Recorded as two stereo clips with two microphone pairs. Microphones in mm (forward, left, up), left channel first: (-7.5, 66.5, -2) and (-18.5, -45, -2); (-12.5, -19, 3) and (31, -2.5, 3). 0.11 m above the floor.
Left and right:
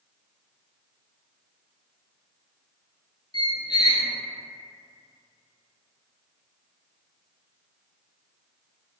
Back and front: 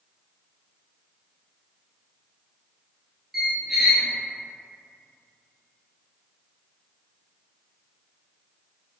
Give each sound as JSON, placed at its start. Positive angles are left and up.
{"t": 3.3, "sound": "a squeak", "azimuth_deg": 100, "distance_m": 0.6}